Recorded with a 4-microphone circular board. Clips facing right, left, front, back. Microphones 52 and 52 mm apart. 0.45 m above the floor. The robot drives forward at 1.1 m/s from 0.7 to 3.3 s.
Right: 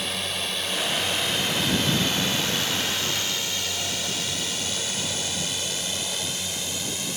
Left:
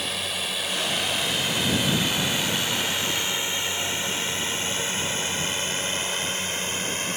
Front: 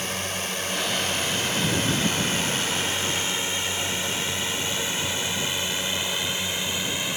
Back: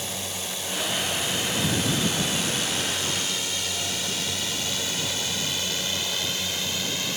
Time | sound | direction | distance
0.0 | a drone | 5° left | ?